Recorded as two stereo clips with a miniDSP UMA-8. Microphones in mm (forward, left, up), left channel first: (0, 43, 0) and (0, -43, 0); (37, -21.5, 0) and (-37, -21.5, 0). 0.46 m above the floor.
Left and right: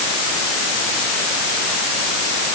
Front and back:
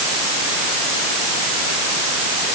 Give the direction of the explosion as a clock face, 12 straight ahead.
No explosion in this recording.